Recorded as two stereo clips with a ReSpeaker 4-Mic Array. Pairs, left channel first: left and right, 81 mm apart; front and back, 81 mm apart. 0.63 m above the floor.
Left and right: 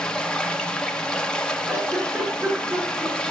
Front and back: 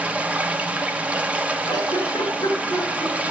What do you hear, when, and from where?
0.0 s running water: 150° left, 0.9 m
1.6 s a giggle: 35° right, 6 m